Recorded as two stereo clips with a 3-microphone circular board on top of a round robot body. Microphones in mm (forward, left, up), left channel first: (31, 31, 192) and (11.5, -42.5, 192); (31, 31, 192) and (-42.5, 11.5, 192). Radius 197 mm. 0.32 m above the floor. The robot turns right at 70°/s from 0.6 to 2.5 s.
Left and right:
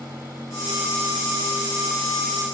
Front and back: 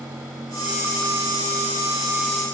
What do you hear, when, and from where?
Only background noise.